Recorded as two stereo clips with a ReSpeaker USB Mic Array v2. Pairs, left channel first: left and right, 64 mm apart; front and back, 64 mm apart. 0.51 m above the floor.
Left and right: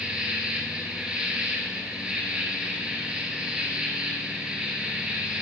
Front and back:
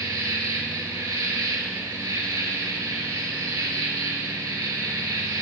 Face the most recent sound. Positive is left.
turn(degrees=-160)